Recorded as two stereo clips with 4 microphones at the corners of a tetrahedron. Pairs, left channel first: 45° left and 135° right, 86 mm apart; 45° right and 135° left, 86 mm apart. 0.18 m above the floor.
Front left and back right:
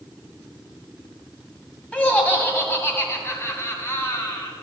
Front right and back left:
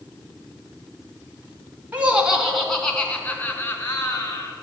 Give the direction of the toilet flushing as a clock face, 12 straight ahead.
No toilet flushing in this recording.